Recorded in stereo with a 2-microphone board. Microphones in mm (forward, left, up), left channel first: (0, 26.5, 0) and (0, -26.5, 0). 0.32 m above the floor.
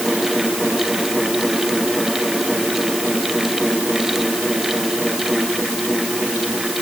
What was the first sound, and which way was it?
Only background noise.